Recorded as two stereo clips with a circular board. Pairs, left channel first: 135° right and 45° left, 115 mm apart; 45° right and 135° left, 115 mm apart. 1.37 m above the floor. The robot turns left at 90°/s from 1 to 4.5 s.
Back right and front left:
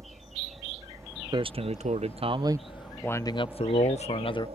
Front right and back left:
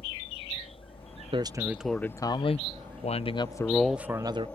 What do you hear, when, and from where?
0.0 s a helicopter: 15° right; by 4.6 s 30° left
1.3 s a man speaking: 95° left; by 4.5 s 170° left